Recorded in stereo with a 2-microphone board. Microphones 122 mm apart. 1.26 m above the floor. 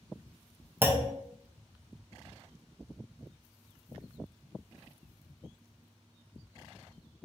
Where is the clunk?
15° right (ahead or behind), 0.5 m.